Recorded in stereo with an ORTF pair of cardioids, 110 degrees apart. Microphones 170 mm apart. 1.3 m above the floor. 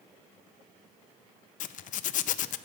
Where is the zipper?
55° left, 0.6 m.